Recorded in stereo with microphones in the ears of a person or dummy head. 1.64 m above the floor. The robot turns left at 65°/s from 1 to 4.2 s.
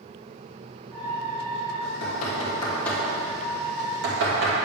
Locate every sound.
1.8 s knocking: 75° left (ahead or behind), 3 m; by 4.5 s 80° right, 3 m